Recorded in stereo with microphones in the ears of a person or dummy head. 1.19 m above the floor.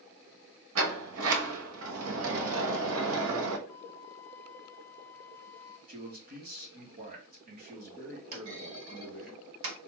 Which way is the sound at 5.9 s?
40° right (ahead or behind).